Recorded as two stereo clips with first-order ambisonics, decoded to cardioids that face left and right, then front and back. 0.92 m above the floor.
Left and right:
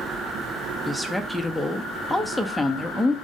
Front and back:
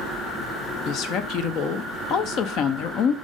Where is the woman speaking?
Straight ahead, 0.6 m.